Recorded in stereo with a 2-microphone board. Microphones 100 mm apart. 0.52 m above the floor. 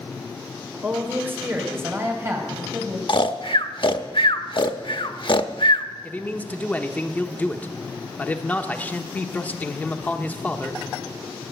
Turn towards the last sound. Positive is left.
turn(degrees=15)  # may be behind; listen again after turning